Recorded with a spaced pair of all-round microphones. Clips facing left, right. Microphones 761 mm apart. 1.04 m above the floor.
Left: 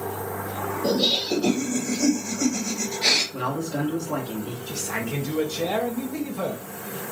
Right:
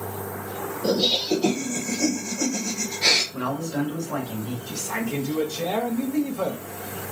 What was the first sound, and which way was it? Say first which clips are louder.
Laughter: right 1 dB; 40° right (ahead or behind).